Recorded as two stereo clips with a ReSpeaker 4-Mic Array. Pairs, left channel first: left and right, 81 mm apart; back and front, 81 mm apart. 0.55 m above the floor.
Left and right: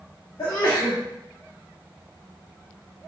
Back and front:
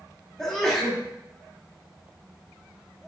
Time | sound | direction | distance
0.4 | a sneeze | 105° left | 1.0 m